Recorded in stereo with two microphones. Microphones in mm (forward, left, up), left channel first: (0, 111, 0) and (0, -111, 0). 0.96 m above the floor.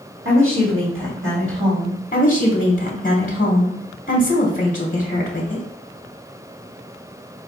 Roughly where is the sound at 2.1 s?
Left.